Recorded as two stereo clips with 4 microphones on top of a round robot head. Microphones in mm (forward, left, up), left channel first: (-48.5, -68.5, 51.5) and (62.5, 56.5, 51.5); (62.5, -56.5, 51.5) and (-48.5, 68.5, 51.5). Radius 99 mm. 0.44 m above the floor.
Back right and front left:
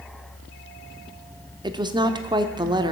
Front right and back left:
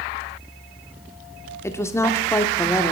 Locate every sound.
1.6 s a woman speaking: 10° left, 0.8 m